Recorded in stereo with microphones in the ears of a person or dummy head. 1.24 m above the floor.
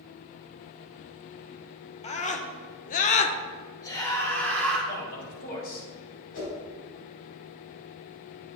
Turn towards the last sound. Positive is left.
turn(degrees=55)  # may be behind; listen again after turning